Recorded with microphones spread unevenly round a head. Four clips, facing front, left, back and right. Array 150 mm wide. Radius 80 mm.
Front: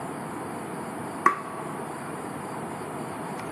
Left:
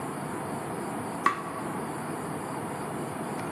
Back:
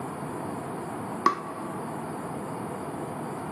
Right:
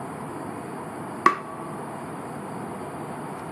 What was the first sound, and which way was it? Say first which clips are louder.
Tapping: right 7 dB, front 2 dB; 100° right.